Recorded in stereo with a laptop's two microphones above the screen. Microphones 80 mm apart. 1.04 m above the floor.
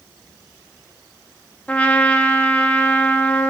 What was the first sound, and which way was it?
A trumpet, 15° left (ahead or behind).